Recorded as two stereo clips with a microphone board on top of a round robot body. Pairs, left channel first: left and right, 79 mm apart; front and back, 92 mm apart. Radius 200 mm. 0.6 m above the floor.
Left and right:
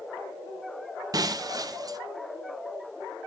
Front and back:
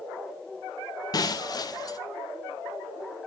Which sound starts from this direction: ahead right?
Breaking glass, at 1.1 s.